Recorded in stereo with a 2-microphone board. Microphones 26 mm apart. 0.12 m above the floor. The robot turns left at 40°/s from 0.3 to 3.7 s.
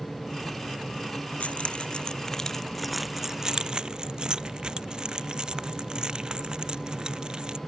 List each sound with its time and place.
1.4 s keys jangling: 55° left (ahead or behind); by 7.6 s 35° right (ahead or behind)